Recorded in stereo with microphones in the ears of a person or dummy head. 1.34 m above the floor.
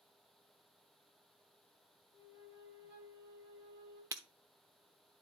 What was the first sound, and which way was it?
A flute, 60° right (ahead or behind).